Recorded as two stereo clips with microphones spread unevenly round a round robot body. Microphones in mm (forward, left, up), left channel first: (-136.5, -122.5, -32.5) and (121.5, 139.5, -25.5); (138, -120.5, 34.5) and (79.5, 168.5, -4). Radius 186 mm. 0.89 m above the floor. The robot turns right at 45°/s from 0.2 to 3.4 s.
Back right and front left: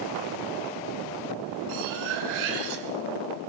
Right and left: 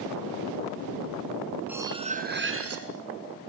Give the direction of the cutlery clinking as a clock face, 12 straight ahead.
11 o'clock.